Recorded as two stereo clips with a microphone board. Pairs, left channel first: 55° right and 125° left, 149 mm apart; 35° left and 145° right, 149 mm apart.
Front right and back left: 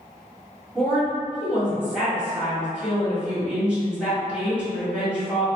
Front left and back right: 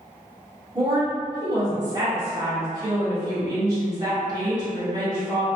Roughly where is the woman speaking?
Behind.